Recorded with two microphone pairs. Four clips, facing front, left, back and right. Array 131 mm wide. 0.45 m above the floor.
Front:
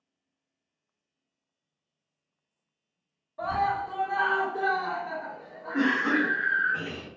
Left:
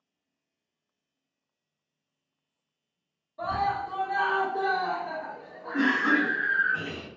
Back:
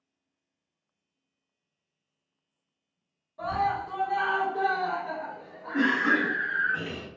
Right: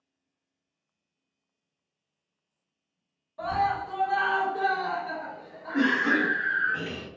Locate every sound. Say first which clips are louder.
3.4 s a scream: right 1 dB, front 1 dB; 35° right, 1.2 m; by 6.7 s 140° left, 1.8 m
5.7 s a cough: even, even; 170° left, 1.3 m